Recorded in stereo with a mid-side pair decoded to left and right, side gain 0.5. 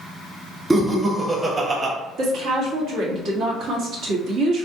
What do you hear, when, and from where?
0.7 s laughter: 20° right, 1.5 m; by 1.9 s 45° right, 0.9 m
2.2 s a woman speaking: 70° right, 1.6 m